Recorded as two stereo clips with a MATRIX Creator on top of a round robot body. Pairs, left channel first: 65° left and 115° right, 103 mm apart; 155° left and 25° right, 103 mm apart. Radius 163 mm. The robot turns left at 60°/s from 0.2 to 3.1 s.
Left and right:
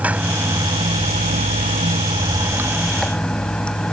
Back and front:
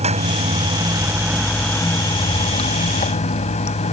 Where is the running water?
35° right; by 3.9 s 150° left.